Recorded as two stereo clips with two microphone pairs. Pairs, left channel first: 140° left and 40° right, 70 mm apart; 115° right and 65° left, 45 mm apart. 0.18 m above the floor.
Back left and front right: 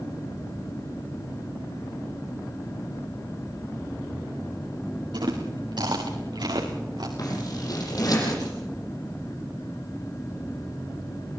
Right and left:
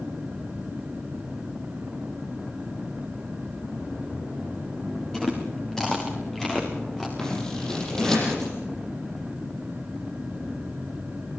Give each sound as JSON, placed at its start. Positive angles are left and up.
{"t": 5.1, "sound": "chewing", "azimuth_deg": -30, "distance_m": 4.0}
{"t": 7.2, "sound": "scissors", "azimuth_deg": 170, "distance_m": 7.5}